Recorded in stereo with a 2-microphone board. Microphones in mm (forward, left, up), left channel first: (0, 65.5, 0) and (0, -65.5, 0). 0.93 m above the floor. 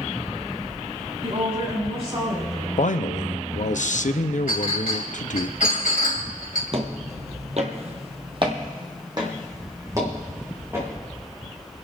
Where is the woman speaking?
50° right (ahead or behind), 6.5 m; by 2.7 s 45° right (ahead or behind), 6 m.